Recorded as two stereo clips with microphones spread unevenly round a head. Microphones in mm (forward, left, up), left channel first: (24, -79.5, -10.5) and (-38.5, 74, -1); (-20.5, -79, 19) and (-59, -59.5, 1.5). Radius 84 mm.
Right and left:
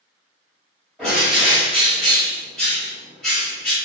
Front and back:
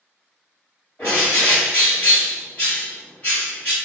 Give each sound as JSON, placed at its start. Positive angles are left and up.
{"t": 1.0, "sound": "a bird", "azimuth_deg": 20, "distance_m": 1.5}